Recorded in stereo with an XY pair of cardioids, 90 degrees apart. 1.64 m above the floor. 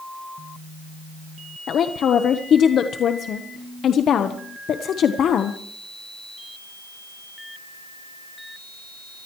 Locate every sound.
1.7 s a woman speaking: 65° left, 1.1 m